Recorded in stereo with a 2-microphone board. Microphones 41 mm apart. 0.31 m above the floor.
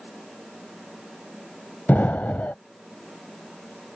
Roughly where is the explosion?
Left.